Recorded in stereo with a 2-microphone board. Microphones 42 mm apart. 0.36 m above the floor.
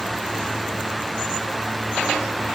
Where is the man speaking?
No man speaking in this recording.